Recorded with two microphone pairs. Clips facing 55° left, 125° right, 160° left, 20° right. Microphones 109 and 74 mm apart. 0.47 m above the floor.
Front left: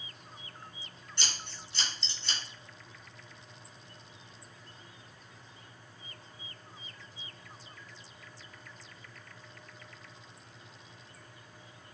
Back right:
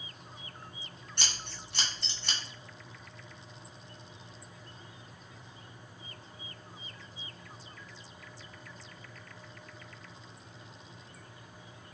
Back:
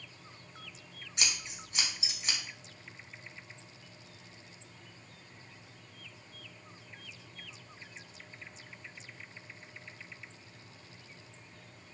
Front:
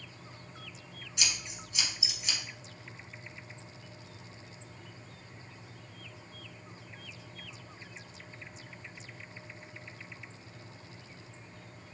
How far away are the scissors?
About 1.2 m.